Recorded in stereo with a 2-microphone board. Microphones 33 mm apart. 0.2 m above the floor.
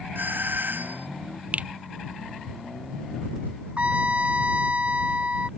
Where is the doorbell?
75° right (ahead or behind).